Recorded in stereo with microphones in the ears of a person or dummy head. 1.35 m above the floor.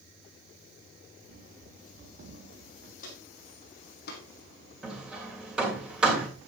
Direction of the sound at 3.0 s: 50° left (ahead or behind).